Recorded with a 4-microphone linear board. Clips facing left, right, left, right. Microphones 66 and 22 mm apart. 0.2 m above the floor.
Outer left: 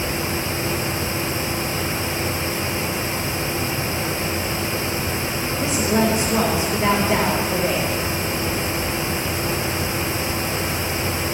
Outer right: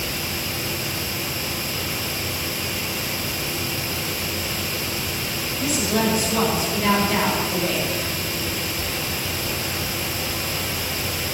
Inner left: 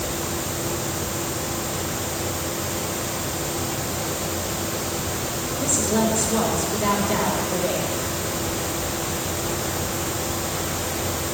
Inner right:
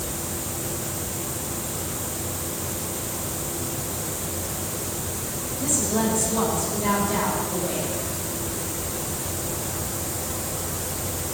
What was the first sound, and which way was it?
A woman speaking, 25° left (ahead or behind).